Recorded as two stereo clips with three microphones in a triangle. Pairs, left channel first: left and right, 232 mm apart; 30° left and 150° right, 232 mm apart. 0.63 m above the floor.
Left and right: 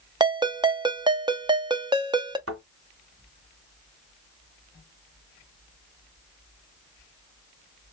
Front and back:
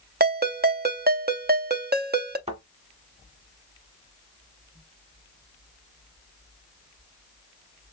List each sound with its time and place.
0.2 s a ringtone: 155° right, 0.6 m
2.5 s a thud: 85° right, 1.7 m